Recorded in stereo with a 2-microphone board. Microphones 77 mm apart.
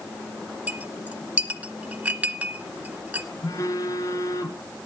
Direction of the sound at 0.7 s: 20° right (ahead or behind).